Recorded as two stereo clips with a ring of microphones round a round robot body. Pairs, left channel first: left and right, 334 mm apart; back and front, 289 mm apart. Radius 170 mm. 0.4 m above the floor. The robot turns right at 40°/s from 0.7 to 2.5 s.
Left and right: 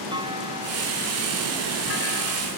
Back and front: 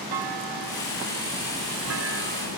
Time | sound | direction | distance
0.1 | a clunk | 15° right | ?